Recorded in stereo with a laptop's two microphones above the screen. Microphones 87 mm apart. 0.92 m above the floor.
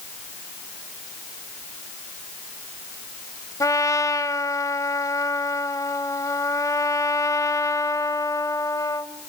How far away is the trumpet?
About 1.4 m.